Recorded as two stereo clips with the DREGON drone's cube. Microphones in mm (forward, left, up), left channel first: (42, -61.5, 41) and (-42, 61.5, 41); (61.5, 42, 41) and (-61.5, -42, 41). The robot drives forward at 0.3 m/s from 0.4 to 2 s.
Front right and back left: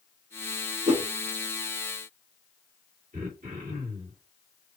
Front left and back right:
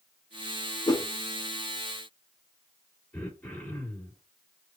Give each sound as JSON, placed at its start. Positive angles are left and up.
{"t": 0.9, "sound": "a whoosh", "azimuth_deg": 95, "distance_m": 1.0}
{"t": 3.1, "sound": "throat clearing", "azimuth_deg": 115, "distance_m": 1.8}